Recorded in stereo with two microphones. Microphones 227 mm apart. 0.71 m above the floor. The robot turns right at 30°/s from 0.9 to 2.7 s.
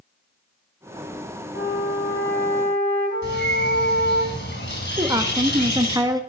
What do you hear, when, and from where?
1.5 s a flute: 105° left, 4.5 m; by 4.2 s 140° left, 4.5 m
3.2 s a bird: 55° left (ahead or behind), 3.5 m
5.0 s a woman speaking: 15° right (ahead or behind), 0.7 m